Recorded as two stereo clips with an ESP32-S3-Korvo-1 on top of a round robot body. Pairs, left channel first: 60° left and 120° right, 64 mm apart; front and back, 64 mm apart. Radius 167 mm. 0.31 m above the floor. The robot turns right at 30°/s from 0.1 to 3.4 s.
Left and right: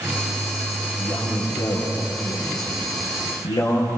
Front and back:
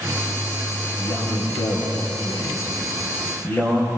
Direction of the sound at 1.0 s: 10° right.